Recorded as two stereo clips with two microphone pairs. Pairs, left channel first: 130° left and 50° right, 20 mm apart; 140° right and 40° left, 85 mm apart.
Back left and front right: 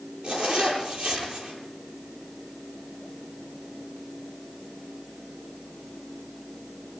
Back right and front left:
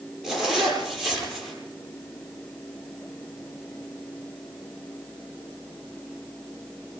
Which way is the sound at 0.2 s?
45° right.